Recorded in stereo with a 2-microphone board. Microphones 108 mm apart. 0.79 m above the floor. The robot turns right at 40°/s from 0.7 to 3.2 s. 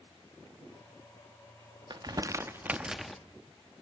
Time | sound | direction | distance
1.9 | crumpling | 45° right (ahead or behind) | 0.7 m